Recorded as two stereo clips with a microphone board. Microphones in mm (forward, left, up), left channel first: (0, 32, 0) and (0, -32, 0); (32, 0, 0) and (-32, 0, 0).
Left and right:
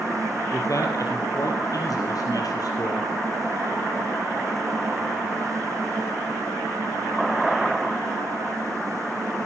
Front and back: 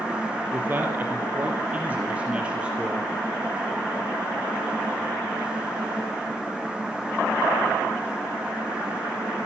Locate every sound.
0.5 s a man speaking: 125° left, 4.5 m; by 3.1 s 105° left, 4.5 m